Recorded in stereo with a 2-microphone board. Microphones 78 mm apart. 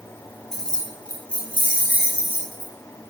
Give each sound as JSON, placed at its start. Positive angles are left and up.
{"t": 0.5, "sound": "keys jangling", "side_deg": 5, "distance_m": 2.0}